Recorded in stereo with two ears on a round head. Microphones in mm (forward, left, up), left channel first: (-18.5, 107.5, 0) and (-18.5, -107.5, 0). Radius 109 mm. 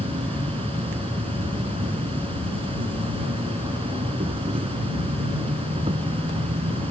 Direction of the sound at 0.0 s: 25° right (ahead or behind).